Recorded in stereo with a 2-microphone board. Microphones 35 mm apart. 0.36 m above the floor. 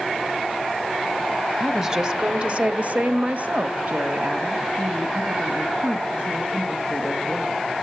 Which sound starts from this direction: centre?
A woman speaking, at 1.6 s.